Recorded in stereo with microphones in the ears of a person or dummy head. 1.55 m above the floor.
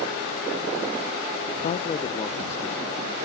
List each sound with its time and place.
1.6 s a man speaking: 35° left (ahead or behind); by 3.2 s 10° left (ahead or behind)